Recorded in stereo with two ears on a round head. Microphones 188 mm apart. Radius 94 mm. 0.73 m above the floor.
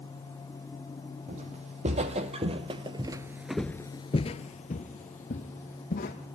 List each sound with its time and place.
1.3 s footsteps: 35° right (ahead or behind), 2.5 m; by 6.2 s 40° left (ahead or behind), 2.5 m